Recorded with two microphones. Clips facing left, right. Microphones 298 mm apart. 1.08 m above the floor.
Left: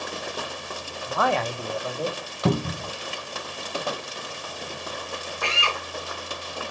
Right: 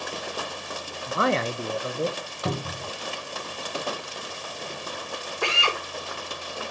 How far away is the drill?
About 4 m.